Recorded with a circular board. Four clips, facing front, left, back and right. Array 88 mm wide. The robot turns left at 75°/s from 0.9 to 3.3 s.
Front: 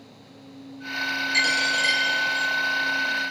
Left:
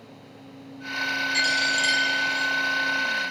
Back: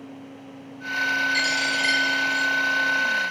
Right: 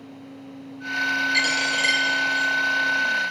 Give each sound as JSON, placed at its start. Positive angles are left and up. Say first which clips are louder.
{"t": 1.3, "sound": "a dropped coin", "louder": "right 1 dB, front 1 dB", "azimuth_deg": -55, "distance_m": 2.0}